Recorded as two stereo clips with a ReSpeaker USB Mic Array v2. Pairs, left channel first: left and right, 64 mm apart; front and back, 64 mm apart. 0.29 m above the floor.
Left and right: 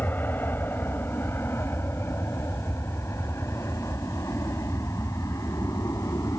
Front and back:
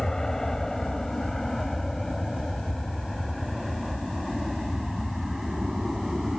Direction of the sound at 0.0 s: 75° left.